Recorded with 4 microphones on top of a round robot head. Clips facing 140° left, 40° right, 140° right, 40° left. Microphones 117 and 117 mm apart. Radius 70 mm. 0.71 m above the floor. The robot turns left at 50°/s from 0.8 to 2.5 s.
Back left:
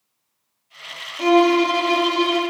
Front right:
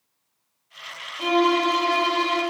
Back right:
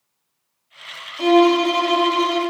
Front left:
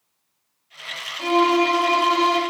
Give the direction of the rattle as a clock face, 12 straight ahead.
I don't hear a rattle.